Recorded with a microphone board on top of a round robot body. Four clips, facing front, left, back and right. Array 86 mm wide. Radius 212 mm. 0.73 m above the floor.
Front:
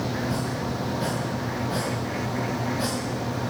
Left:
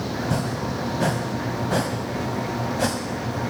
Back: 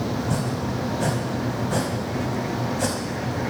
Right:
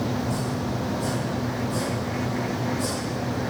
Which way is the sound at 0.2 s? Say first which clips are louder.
Left 1 dB, back 2 dB; 100° left.